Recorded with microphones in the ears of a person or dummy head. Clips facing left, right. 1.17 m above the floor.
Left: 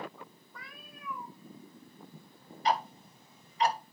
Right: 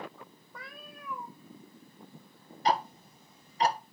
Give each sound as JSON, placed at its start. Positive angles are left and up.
{"t": 0.5, "sound": "a cat meowing", "side_deg": -60, "distance_m": 2.5}
{"t": 2.6, "sound": "ticking", "side_deg": -35, "distance_m": 0.9}